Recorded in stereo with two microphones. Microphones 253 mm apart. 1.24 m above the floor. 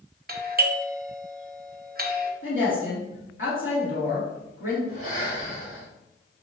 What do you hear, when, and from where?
0.3 s a doorbell: 40° right (ahead or behind), 1.0 m
2.4 s a woman speaking: 55° left (ahead or behind), 3 m
4.9 s breathing: 65° left (ahead or behind), 2.5 m